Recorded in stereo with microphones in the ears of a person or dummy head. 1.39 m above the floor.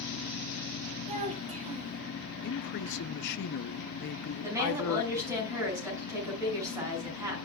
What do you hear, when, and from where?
1.1 s a child speaking: 30° right (ahead or behind), 1.6 m
2.4 s a man speaking: 60° left (ahead or behind), 0.6 m
4.4 s a woman speaking: 15° right (ahead or behind), 6.5 m